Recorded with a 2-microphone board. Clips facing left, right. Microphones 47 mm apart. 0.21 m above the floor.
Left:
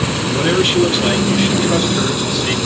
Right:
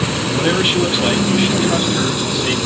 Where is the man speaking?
10° right (ahead or behind), 1.5 m; by 2.6 s 15° right (ahead or behind), 1.7 m.